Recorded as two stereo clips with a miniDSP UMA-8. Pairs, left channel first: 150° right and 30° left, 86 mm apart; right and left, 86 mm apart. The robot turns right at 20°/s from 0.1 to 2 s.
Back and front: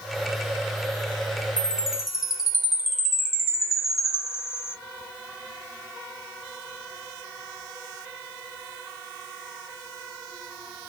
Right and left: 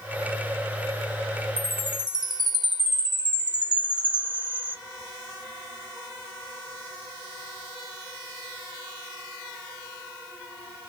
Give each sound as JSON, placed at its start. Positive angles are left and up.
{"t": 1.6, "sound": "a chime", "azimuth_deg": 105, "distance_m": 0.9}